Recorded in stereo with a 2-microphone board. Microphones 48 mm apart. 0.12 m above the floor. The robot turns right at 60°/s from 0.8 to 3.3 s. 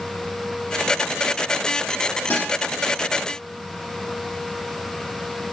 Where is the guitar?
50° left (ahead or behind), 3 m; by 2.5 s 35° left (ahead or behind), 3 m.